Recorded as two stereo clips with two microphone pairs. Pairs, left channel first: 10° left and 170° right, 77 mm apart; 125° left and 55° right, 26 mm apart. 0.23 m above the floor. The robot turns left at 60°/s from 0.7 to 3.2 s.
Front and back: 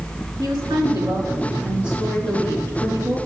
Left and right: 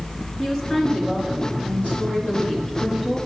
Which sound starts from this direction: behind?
A woman speaking, at 0.4 s.